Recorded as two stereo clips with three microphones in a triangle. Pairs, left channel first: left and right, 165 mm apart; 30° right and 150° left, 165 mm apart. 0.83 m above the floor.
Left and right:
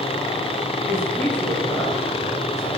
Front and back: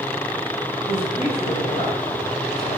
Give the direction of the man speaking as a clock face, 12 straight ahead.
12 o'clock.